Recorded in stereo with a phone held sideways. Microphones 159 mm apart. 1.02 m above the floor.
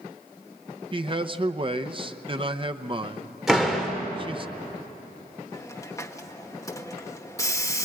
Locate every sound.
0.9 s a man speaking: 35° right (ahead or behind), 0.8 m
3.5 s a door slam: 5° right (ahead or behind), 3 m
5.5 s a hiss: 20° left (ahead or behind), 1.1 m